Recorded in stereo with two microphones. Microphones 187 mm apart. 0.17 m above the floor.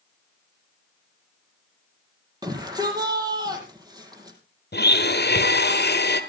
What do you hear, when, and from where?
2.4 s a shout: 20° right (ahead or behind), 5 m
4.7 s a blender: 70° left (ahead or behind), 1.5 m